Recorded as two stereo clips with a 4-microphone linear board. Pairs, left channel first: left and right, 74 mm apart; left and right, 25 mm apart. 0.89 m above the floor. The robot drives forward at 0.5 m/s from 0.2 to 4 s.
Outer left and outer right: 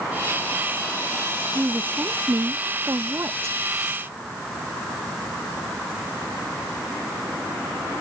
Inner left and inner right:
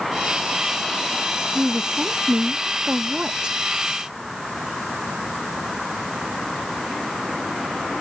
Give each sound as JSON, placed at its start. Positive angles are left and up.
{"t": 1.6, "sound": "a woman speaking", "side_deg": -30}